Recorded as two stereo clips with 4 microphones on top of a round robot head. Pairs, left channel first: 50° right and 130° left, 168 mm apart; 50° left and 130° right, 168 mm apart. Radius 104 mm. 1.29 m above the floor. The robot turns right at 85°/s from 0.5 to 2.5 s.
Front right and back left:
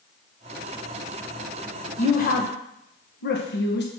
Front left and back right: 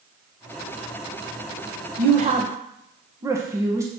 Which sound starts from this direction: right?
A woman speaking, at 2.0 s.